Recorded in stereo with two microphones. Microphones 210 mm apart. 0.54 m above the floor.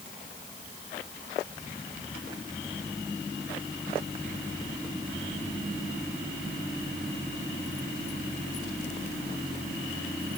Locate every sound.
Only background noise.